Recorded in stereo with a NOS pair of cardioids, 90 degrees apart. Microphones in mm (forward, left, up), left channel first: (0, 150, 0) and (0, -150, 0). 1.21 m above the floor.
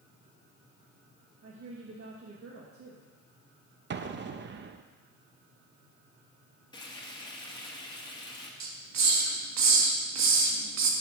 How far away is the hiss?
About 1.6 m.